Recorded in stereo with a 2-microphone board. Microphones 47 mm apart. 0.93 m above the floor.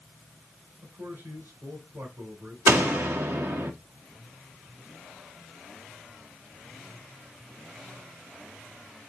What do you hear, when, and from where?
0.8 s a man speaking: 85° right, 6 m
2.7 s a door slam: 75° right (ahead or behind), 1.6 m